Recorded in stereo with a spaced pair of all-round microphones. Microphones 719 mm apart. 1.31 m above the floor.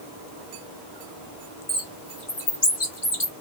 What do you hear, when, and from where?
1.7 s a bird: 40° left (ahead or behind), 2 m